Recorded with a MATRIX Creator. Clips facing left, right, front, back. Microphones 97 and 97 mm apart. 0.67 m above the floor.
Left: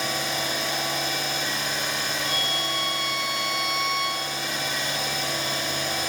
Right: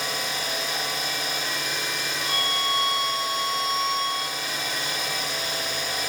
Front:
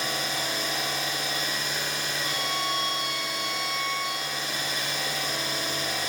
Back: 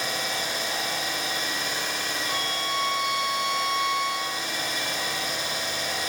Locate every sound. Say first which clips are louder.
0.0 s an engine running: left 2 dB, back 1 dB; 125° left, 1.5 m
2.2 s a violin: right 2 dB, front 1 dB; 140° left, 1.5 m